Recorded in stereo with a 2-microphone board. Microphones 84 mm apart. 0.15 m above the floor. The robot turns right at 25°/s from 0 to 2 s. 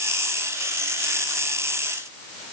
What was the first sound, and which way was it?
Only background noise.